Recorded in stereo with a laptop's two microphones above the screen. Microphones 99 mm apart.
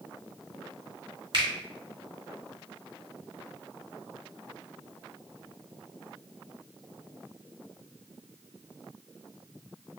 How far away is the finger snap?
About 1.9 m.